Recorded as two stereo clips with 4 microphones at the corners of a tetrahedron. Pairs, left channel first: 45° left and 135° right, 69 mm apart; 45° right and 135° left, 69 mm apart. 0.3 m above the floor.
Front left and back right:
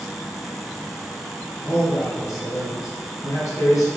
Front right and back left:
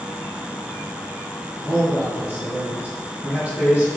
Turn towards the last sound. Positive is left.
turn(degrees=70)